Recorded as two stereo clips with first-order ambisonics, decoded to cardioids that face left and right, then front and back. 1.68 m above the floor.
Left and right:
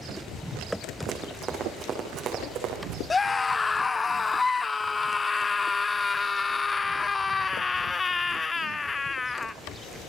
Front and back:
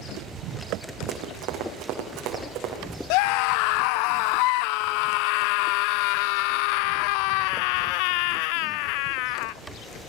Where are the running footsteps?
160° right, 5 m; by 3.0 s 130° right, 5.5 m.